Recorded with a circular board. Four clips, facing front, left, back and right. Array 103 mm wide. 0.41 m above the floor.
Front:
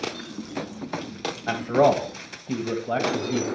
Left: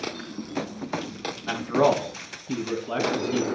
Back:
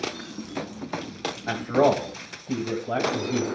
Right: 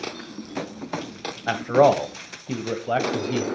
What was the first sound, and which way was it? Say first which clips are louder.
A man speaking: right 4 dB, front 1 dB; 85° right.